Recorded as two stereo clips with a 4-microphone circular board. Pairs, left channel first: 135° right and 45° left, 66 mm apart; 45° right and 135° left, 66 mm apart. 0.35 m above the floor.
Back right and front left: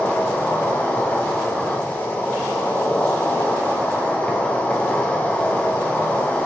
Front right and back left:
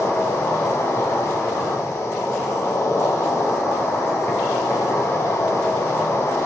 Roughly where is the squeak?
I don't hear a squeak.